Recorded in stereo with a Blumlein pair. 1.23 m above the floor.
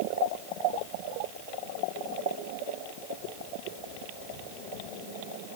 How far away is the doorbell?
I don't hear a doorbell.